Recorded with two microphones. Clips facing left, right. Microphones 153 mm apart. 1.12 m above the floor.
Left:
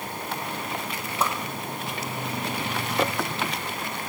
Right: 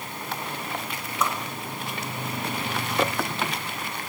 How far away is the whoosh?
About 1.1 m.